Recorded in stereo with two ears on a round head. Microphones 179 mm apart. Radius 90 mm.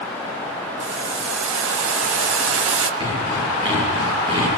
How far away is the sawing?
About 9.5 m.